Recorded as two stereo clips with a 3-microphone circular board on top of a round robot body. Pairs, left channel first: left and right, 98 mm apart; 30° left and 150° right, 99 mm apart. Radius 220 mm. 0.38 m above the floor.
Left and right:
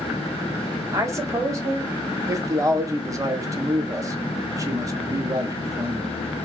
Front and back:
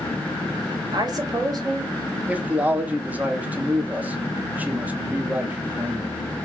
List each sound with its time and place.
0.9 s a woman speaking: 135° right, 1.7 m
2.3 s a man speaking: 90° right, 1.2 m